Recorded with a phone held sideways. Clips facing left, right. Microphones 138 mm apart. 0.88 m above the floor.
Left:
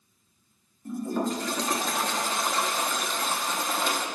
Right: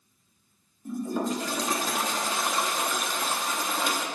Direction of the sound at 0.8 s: 5° right (ahead or behind).